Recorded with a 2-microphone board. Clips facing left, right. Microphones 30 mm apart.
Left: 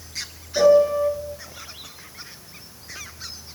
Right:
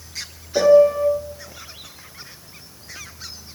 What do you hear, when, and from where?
0.6 s a piano: 75° right (ahead or behind), 0.6 m